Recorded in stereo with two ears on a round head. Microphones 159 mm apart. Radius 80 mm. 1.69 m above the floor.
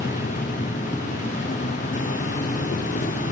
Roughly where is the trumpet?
No trumpet in this recording.